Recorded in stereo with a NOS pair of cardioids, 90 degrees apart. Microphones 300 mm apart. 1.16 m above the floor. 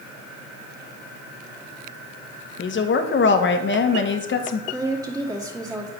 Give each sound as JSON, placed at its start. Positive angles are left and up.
{"t": 2.6, "sound": "a woman speaking", "azimuth_deg": 40, "distance_m": 1.0}
{"t": 4.7, "sound": "a woman speaking", "azimuth_deg": -10, "distance_m": 2.0}